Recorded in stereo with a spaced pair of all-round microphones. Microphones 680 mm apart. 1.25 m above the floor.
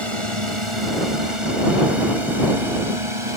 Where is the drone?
45° right (ahead or behind).